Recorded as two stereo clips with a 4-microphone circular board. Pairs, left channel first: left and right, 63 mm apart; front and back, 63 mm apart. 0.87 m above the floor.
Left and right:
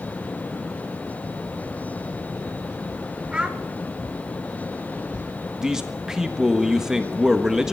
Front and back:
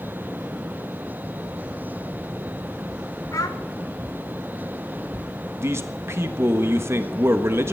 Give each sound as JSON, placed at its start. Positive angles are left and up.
{"t": 3.3, "sound": "a child speaking", "azimuth_deg": -15, "distance_m": 1.5}
{"t": 5.6, "sound": "a man speaking", "azimuth_deg": -165, "distance_m": 1.3}